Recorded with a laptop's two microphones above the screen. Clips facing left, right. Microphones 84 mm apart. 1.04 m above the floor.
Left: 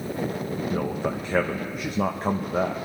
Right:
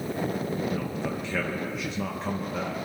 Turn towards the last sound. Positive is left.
turn(degrees=45)  # may be behind; listen again after turning